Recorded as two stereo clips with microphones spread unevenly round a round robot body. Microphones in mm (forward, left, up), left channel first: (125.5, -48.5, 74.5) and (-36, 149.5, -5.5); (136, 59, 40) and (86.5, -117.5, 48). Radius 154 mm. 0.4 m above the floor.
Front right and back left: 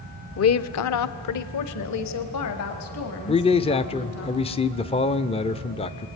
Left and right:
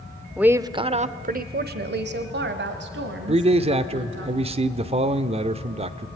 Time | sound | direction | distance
0.4 | a woman speaking | 20° right | 1.0 m
3.3 | a man speaking | 130° right | 0.9 m